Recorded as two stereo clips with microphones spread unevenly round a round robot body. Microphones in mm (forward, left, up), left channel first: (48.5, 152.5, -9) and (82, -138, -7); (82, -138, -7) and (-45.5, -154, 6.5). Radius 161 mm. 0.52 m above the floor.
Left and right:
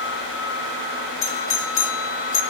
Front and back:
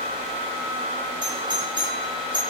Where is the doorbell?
130° left, 1.9 m.